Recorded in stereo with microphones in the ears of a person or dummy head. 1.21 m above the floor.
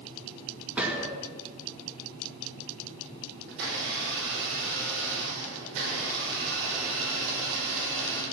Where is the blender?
75° right (ahead or behind), 5.5 m.